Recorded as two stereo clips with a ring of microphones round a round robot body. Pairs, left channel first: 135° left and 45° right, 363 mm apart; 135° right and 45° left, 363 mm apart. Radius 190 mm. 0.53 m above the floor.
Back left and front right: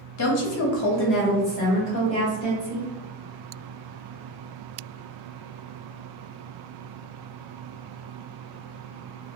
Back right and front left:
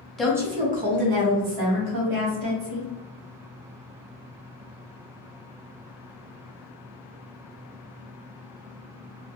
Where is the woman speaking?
135° left, 0.9 m; by 2.9 s 55° left, 1.7 m.